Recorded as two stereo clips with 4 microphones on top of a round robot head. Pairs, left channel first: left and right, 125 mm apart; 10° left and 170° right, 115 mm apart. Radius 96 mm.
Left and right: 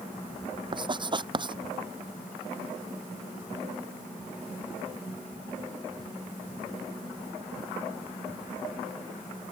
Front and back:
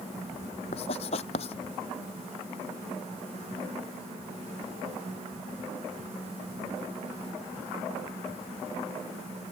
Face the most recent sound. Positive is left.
turn(degrees=-40)